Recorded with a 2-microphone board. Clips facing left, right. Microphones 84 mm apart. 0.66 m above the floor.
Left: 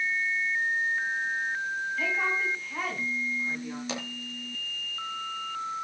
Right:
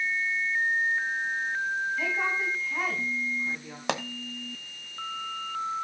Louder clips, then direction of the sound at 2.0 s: Even; 5° right (ahead or behind).